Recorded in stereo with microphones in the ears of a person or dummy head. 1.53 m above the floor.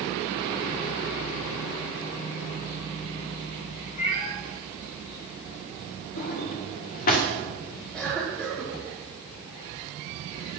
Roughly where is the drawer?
Left.